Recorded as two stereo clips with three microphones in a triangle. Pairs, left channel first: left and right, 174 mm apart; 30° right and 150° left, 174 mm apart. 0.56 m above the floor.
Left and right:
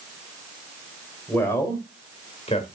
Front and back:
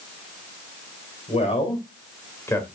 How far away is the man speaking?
About 2.5 m.